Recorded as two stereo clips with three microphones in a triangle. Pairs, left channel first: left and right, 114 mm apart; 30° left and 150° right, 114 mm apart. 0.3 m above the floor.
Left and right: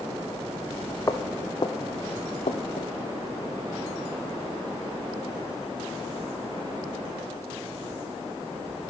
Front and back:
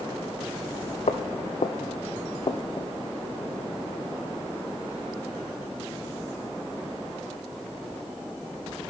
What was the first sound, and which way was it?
Footsteps, 30° left.